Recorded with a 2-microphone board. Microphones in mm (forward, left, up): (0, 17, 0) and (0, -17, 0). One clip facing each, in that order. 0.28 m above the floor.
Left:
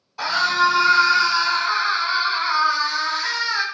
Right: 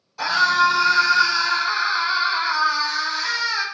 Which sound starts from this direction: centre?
A scream, at 0.2 s.